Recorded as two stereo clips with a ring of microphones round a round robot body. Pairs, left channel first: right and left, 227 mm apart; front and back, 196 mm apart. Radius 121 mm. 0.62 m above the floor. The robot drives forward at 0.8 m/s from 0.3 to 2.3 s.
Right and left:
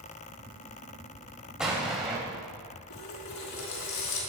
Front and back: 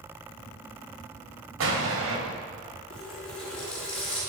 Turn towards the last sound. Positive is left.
turn(degrees=-85)